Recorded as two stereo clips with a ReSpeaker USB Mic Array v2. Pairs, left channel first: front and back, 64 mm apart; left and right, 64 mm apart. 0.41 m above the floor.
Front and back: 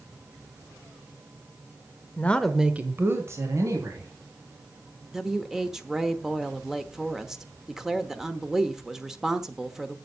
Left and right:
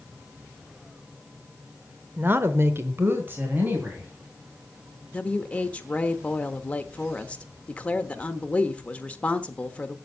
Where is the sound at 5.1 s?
115° left, 1.0 m.